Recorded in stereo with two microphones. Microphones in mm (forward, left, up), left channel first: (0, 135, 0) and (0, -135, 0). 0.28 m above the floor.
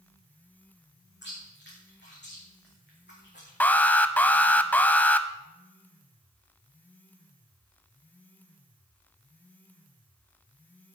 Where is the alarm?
5° left (ahead or behind), 0.9 m.